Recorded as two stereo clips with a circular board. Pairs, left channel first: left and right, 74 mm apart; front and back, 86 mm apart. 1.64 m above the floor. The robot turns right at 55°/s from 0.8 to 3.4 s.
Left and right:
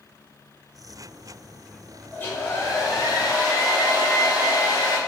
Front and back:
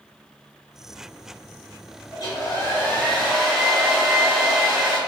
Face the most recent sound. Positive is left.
turn(degrees=95)